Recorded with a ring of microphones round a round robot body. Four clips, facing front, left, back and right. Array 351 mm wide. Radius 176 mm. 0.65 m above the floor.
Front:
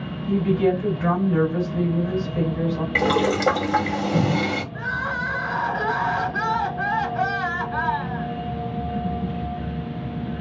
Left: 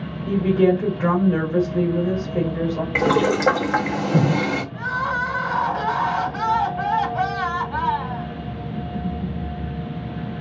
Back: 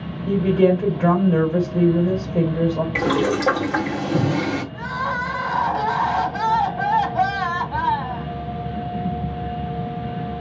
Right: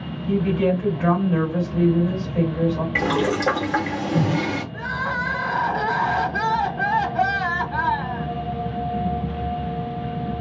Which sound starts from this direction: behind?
Crying, at 4.7 s.